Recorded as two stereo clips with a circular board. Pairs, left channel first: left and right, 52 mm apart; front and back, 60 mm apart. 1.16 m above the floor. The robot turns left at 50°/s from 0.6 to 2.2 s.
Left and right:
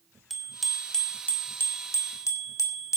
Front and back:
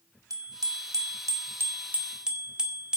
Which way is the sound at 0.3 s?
175° right.